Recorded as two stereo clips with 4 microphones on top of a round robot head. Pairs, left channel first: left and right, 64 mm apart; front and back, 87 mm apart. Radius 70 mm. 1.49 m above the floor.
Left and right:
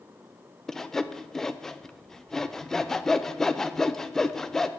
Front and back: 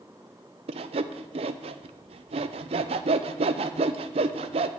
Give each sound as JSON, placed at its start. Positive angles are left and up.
{"t": 0.7, "sound": "sawing", "azimuth_deg": 170, "distance_m": 0.6}